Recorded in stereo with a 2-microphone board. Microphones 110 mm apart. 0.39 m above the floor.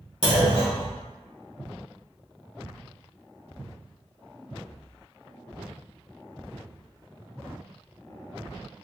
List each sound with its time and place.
0.2 s a clunk: 60° left (ahead or behind), 1.4 m